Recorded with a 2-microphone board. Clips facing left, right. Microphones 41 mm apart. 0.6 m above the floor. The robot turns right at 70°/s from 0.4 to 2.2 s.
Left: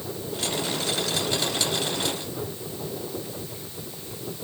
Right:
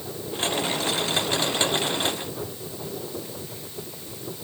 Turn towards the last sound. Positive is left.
No sound to turn to.